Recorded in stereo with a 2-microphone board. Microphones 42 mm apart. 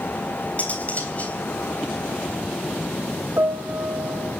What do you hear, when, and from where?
0.6 s cutlery clinking: 35° left (ahead or behind), 3.5 m
3.4 s a piano: 60° right (ahead or behind), 1.2 m